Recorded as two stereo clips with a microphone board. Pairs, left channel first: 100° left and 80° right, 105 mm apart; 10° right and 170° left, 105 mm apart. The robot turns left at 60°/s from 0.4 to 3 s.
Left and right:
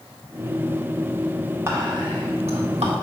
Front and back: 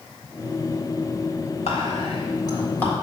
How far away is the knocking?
I don't hear knocking.